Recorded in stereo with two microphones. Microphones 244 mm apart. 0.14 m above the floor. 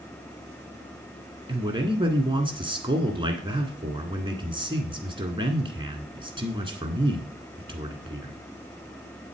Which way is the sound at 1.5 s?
20° right (ahead or behind).